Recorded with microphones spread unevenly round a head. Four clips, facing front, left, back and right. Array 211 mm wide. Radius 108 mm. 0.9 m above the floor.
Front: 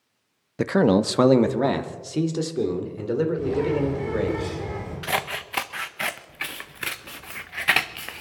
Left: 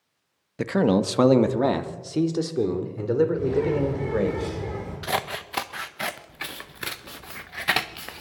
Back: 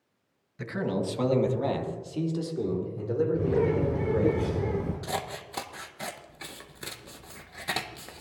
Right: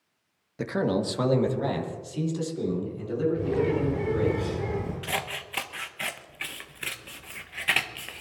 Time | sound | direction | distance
0.6 | a man speaking | 20° left | 0.9 m
3.3 | a bird | 165° right | 8.5 m
5.0 | scissors | 75° left | 0.7 m